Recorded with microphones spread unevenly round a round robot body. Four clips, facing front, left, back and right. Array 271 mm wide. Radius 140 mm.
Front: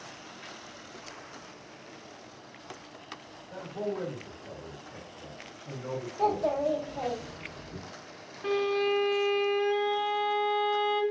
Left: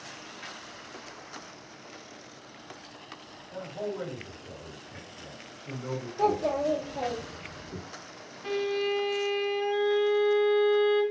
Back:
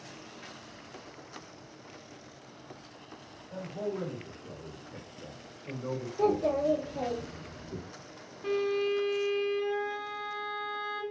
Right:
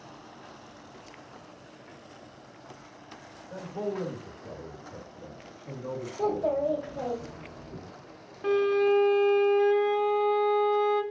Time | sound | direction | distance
3.5 | a man speaking | 85° right | 1.0 m
6.2 | a child speaking | 170° left | 1.3 m
8.4 | a violin | 75° right | 0.6 m